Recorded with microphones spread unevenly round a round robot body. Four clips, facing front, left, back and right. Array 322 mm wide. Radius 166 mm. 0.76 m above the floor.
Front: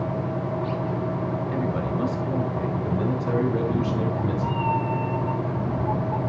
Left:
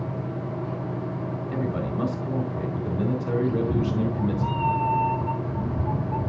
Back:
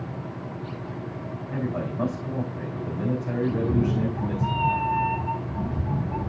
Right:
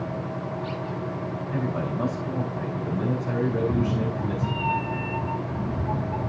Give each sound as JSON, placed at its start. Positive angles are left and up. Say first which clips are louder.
{"t": 1.5, "sound": "a man speaking", "louder": "even, front 3 dB", "azimuth_deg": 60, "distance_m": 2.5}
{"t": 3.5, "sound": "a cat meowing", "louder": "even, even", "azimuth_deg": 160, "distance_m": 1.1}